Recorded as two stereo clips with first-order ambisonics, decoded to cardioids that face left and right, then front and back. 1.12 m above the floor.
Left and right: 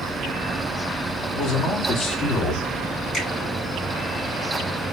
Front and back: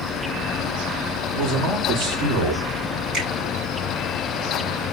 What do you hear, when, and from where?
1.3 s a man speaking: 140° left, 3.5 m
3.1 s a finger snap: 135° left, 4 m